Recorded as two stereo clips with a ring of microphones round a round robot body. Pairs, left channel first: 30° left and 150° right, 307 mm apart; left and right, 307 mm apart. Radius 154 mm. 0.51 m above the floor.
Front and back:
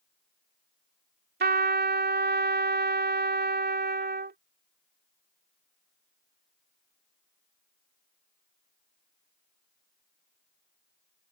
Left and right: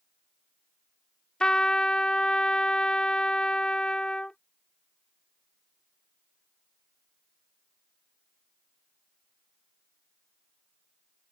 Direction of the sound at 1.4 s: 175° left.